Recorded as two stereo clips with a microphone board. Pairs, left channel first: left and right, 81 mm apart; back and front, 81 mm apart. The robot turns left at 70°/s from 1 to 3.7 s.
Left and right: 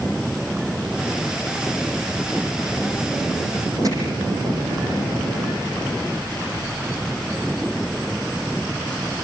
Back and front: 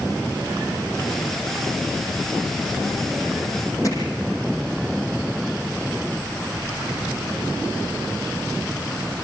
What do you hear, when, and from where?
3.8 s hammering: 135° right, 6.5 m